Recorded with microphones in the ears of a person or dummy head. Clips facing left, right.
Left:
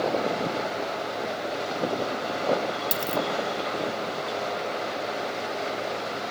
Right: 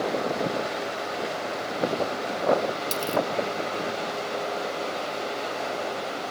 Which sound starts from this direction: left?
A dropped coin, at 2.9 s.